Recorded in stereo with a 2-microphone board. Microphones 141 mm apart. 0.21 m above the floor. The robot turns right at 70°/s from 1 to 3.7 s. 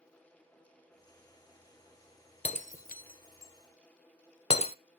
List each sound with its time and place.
2.5 s breaking glass: 45° left (ahead or behind), 0.5 m